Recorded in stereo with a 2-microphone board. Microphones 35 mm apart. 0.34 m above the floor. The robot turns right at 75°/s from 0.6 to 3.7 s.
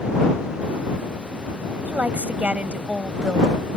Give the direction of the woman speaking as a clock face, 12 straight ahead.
4 o'clock.